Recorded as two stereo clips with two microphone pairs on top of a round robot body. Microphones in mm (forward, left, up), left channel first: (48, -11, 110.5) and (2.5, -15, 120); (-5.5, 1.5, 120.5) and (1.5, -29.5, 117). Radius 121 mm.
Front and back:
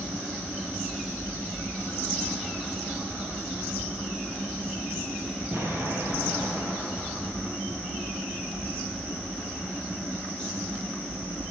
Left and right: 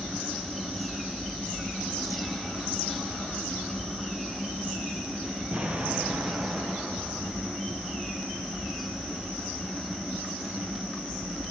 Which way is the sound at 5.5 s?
130° right.